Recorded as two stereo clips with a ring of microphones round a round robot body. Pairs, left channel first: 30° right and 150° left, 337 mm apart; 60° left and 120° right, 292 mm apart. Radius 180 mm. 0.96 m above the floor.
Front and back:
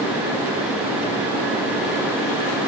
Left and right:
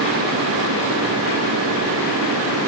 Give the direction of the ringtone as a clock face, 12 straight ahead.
I don't hear a ringtone.